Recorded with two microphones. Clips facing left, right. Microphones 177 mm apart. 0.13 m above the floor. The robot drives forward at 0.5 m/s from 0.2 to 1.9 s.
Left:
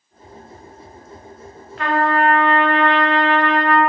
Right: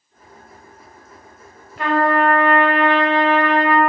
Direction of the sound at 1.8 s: 15° right (ahead or behind).